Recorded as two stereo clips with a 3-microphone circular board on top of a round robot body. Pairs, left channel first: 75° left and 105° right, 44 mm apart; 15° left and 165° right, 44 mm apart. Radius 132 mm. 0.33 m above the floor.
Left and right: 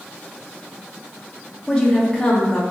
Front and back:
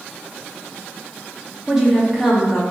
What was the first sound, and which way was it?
A woman speaking, 130° left.